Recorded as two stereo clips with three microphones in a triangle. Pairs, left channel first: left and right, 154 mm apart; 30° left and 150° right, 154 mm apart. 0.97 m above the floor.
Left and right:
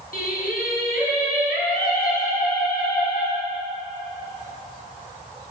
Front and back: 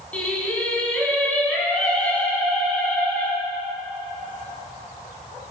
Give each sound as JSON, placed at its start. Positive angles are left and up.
{"t": 0.1, "sound": "singing", "azimuth_deg": 110, "distance_m": 5.5}